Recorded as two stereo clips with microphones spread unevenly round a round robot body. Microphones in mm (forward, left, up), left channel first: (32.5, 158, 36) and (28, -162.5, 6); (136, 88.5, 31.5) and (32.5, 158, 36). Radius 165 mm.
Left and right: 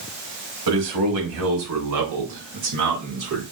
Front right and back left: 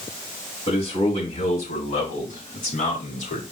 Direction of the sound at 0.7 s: 85° right.